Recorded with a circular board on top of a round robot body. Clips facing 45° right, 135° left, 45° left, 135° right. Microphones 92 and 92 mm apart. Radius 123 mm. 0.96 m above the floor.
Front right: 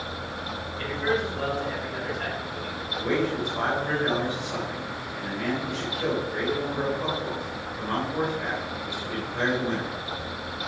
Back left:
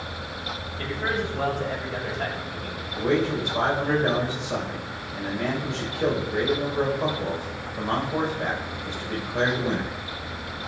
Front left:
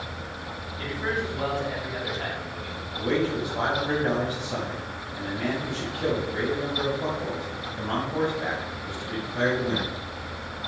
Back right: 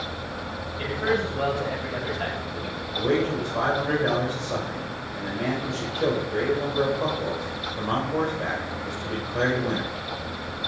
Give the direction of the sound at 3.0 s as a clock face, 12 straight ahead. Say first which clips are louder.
Back left 3 dB, back right 2 dB; 5 o'clock.